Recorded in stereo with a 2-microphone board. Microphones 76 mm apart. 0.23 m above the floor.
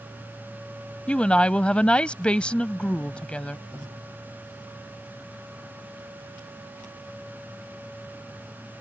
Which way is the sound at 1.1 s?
15° left (ahead or behind).